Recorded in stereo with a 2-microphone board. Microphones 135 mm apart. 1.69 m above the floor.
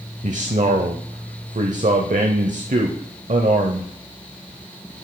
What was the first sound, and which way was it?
A man speaking, 65° right (ahead or behind).